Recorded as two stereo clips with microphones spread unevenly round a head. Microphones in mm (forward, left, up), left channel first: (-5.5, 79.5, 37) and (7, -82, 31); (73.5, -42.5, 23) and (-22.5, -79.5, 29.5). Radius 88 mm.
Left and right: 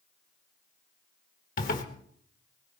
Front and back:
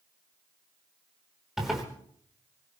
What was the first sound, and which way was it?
A zipper, 115° left.